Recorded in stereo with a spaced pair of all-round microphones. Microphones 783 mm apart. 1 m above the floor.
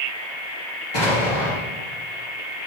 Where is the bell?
No bell in this recording.